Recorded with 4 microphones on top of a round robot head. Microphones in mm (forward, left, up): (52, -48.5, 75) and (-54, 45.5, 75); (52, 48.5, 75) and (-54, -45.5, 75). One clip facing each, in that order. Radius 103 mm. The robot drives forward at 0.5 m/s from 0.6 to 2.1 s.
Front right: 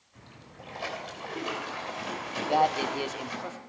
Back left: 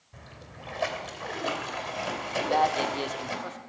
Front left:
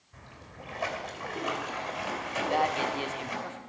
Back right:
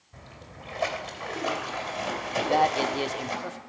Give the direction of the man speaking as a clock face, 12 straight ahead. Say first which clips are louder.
Even, back right 5 dB; 4 o'clock.